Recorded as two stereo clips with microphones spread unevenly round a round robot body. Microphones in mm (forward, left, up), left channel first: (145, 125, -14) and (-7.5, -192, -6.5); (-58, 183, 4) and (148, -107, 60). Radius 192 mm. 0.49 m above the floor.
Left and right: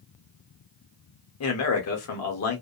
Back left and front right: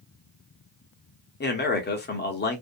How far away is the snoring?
No snoring in this recording.